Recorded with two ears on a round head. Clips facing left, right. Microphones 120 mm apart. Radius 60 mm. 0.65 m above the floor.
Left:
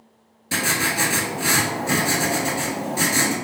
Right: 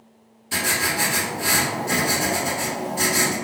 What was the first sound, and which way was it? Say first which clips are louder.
Writing: left 1 dB; 75° left (ahead or behind).